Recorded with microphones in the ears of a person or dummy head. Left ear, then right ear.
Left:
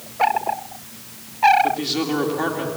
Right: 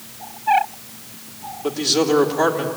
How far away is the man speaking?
About 3 m.